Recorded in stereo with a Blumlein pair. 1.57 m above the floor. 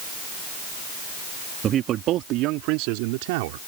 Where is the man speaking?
30° right; by 3.6 s 50° right.